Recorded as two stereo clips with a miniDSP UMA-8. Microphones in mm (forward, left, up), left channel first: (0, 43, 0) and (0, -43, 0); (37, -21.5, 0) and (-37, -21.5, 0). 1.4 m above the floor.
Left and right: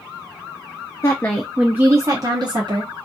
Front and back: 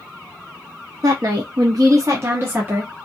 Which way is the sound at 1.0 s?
145° left.